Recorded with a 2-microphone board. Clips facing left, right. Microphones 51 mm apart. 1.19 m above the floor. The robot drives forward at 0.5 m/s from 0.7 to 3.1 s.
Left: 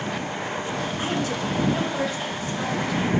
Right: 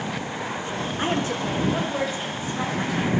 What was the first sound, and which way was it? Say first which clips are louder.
A woman speaking: right 3 dB; 35° right (ahead or behind).